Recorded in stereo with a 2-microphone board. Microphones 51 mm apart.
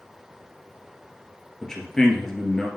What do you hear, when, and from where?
1.6 s a man speaking: 10° left (ahead or behind), 2.0 m